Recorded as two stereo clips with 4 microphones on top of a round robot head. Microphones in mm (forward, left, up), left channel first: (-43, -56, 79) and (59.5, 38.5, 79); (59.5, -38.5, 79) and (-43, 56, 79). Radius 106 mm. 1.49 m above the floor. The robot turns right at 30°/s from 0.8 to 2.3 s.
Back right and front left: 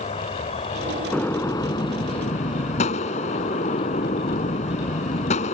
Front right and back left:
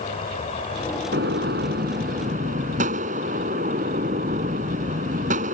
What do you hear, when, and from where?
0.0 s an insect: 90° right; by 5.5 s 45° right
1.1 s a gunshot: 140° left; by 5.5 s 175° left